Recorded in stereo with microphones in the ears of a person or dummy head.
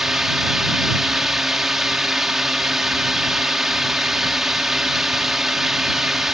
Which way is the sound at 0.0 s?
Centre (ahead or behind).